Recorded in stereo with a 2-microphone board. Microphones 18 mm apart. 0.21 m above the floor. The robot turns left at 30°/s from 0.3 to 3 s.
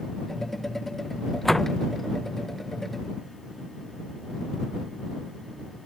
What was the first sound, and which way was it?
A door slam, 15° left (ahead or behind).